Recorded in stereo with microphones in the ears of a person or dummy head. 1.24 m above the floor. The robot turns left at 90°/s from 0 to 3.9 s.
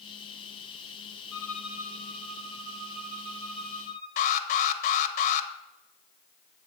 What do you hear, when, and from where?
1.3 s a violin: 25° left, 3 m; by 4.1 s 150° left, 3 m
4.2 s an alarm: 40° left (ahead or behind), 1.4 m